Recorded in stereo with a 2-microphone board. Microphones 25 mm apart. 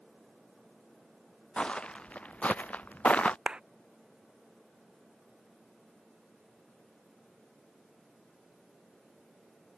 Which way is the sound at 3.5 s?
40° right (ahead or behind).